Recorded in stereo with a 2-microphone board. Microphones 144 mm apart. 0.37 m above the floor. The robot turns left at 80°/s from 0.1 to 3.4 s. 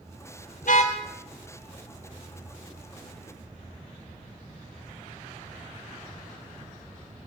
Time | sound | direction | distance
0.6 | a car horn | 70° left (ahead or behind) | 4 m